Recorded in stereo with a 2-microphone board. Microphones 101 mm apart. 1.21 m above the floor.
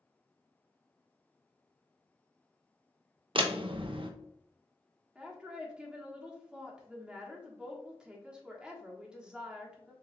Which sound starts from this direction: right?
A door slam, at 3.4 s.